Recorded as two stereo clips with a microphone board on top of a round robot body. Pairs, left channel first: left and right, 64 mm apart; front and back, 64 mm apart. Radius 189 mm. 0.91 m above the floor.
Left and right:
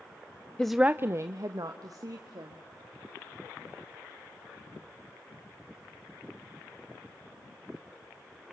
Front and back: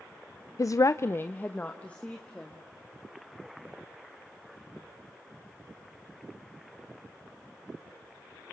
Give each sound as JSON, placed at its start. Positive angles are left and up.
{"t": 0.6, "sound": "a woman speaking", "azimuth_deg": 15, "distance_m": 0.6}